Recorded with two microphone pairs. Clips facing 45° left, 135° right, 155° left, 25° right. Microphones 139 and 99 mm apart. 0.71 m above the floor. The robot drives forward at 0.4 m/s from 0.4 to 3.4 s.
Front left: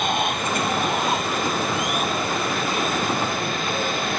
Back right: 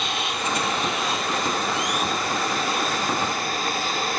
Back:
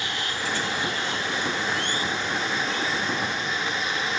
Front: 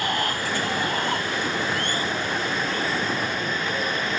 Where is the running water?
15° left.